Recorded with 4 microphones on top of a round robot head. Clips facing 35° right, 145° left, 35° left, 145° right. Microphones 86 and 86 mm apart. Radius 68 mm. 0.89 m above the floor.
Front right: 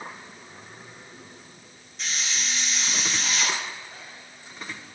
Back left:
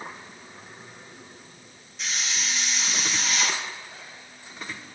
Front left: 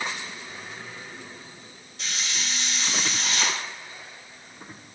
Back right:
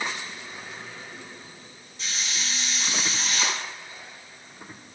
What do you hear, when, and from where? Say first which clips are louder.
2.0 s a hiss: even, even; 55° left, 3.5 m